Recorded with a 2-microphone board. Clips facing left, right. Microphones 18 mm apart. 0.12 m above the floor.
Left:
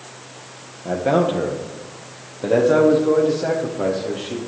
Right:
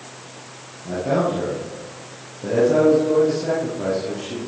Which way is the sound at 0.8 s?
60° left (ahead or behind).